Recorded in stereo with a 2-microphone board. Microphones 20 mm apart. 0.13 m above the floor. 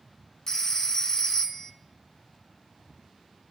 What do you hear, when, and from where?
0.5 s a phone ringing: 30° left (ahead or behind), 1.0 m